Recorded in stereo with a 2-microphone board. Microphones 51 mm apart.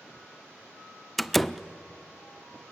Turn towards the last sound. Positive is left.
turn(degrees=0)  # may be behind; listen again after turning